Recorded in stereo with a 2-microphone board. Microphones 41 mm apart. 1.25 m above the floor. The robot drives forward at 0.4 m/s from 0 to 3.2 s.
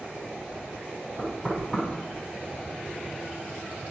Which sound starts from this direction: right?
Knocking, at 1.2 s.